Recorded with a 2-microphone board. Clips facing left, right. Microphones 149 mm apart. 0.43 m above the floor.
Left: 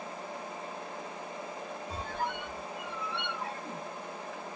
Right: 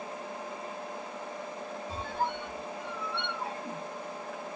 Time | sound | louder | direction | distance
1.9 | a squeak | right 3 dB | 30° right (ahead or behind) | 1.1 m